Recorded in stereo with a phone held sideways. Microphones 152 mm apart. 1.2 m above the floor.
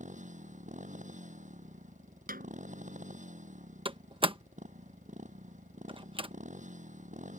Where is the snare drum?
70° right (ahead or behind).